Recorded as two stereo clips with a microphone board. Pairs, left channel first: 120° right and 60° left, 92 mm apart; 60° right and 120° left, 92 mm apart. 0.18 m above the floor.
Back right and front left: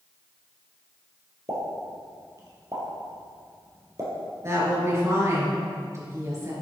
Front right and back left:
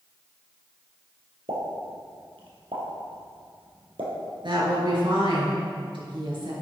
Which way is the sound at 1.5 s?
115° left.